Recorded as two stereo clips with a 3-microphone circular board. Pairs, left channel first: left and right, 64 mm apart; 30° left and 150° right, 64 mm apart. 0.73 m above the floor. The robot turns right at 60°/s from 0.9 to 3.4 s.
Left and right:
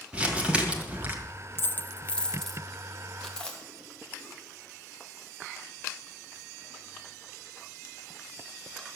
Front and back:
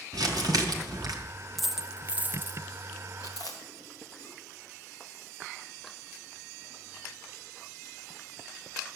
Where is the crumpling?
165° right, 2 m; by 1.1 s 150° right, 2 m.